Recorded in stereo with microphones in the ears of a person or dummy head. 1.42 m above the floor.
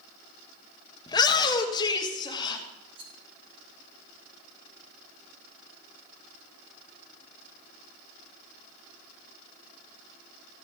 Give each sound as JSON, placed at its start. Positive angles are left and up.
{"t": 1.1, "sound": "a shout", "side_deg": 25, "distance_m": 1.5}
{"t": 3.0, "sound": "a rattle", "side_deg": -25, "distance_m": 1.4}